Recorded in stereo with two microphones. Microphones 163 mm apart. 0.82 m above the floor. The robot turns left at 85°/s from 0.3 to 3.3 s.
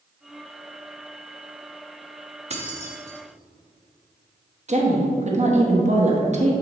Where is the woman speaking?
45° right (ahead or behind), 1.1 m.